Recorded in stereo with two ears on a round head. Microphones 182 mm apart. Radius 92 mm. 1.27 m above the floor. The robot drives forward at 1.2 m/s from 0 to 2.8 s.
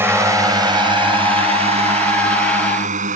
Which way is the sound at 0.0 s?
10° right (ahead or behind).